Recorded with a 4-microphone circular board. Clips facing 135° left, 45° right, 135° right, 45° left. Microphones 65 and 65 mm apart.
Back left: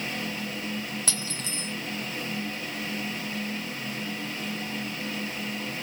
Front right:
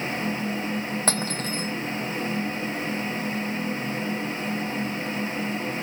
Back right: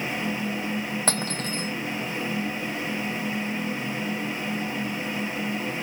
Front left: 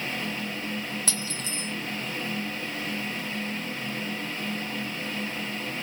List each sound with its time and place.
1.1 s cutlery clinking: 90° right